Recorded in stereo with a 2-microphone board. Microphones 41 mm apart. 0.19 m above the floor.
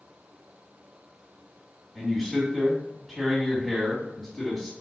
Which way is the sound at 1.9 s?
5° left (ahead or behind).